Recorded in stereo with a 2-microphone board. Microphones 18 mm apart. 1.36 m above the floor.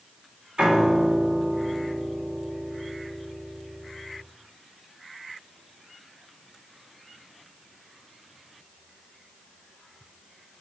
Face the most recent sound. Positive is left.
turn(degrees=-65)  # may be behind; listen again after turning